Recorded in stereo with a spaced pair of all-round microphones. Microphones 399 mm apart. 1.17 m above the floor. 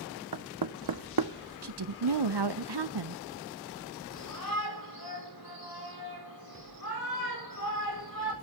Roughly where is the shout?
Left.